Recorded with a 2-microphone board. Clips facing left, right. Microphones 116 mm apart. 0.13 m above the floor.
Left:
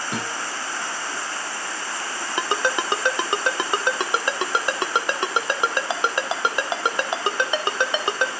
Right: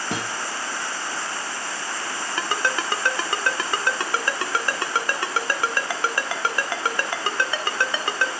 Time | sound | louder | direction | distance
0.1 | a guitar | right 1 dB | 85° right | 5 m
2.4 | a ringtone | left 3 dB | 20° left (ahead or behind) | 0.6 m